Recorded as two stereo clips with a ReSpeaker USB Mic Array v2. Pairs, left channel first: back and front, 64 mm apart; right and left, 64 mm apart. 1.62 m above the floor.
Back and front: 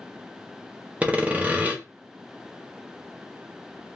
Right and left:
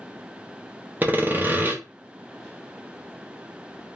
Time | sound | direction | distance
1.0 | sawing | 55° left | 0.5 m